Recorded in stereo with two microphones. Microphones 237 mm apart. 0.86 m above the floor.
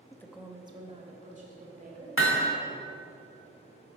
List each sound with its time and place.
0.1 s a woman speaking: 15° left (ahead or behind), 0.7 m; by 2.1 s 35° right (ahead or behind), 3 m
2.2 s hammering: 60° left (ahead or behind), 1.3 m